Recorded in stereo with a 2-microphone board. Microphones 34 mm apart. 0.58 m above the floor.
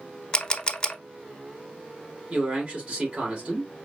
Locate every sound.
0.3 s a camera shutter: 25° left (ahead or behind), 0.6 m
2.3 s a man speaking: 35° right (ahead or behind), 2.5 m